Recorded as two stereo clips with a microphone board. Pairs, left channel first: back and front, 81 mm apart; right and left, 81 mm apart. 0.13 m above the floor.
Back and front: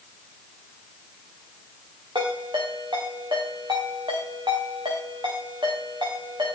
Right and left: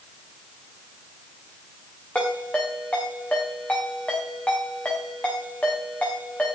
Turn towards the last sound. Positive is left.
turn(degrees=-15)